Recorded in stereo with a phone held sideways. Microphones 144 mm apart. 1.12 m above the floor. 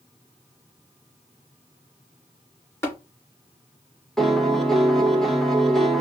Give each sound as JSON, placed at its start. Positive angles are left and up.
{"t": 2.8, "sound": "tapping", "side_deg": 20, "distance_m": 2.5}
{"t": 4.2, "sound": "a piano", "side_deg": 0, "distance_m": 0.8}